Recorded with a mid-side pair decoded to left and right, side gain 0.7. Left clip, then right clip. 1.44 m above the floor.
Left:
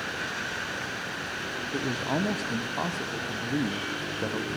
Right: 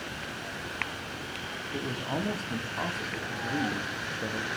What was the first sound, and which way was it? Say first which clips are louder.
A man speaking: left 4 dB; 20° left.